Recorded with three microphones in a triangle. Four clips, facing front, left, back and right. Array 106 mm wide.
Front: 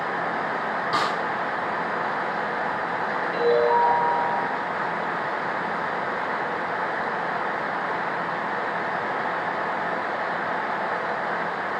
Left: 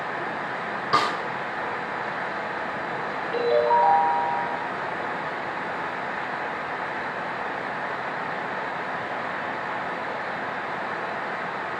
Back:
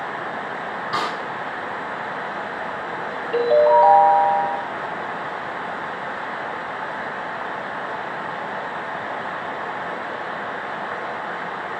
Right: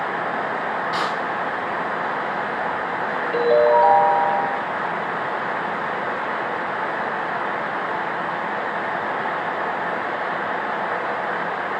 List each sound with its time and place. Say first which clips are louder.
0.9 s a snare drum: left 5 dB, even; 85° left, 3.5 m
3.3 s a ringtone: right 5 dB, back 6 dB; 140° right, 3.5 m